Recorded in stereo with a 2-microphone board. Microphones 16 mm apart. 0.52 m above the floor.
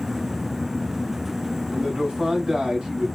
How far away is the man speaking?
About 3.5 m.